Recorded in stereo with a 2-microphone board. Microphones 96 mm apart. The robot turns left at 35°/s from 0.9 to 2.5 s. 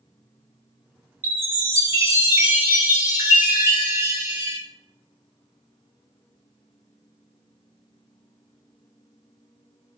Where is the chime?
55° right, 1.4 m; by 4.6 s 100° right, 1.4 m.